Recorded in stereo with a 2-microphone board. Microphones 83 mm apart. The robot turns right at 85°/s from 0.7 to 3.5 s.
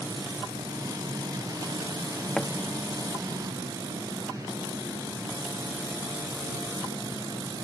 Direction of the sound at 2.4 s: 5° left (ahead or behind).